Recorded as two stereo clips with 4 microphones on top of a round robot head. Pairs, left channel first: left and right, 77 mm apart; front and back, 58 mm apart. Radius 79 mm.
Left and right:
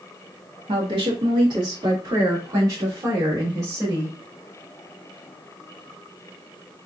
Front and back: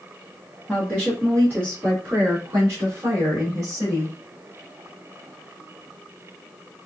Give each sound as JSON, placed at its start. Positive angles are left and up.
{"t": 0.7, "sound": "a woman speaking", "azimuth_deg": -110, "distance_m": 1.2}